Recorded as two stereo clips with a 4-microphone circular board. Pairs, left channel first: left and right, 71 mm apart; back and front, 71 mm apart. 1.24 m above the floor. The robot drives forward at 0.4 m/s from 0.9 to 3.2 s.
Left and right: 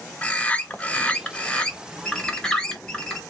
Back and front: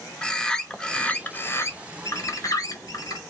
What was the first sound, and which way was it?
A bird, 120° left.